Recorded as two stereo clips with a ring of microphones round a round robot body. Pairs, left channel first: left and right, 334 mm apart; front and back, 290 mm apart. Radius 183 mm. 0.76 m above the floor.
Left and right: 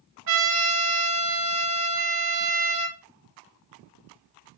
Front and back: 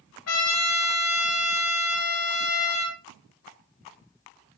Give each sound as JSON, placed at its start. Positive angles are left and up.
{"t": 0.3, "sound": "a trumpet", "azimuth_deg": -40, "distance_m": 2.5}